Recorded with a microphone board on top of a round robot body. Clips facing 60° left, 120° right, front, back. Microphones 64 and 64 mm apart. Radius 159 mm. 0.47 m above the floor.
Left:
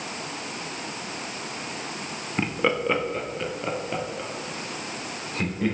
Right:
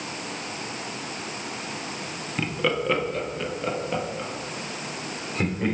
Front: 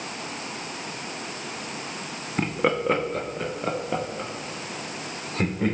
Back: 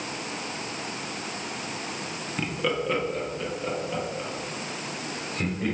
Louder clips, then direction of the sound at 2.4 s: Left 1 dB, front 4 dB; 10° left.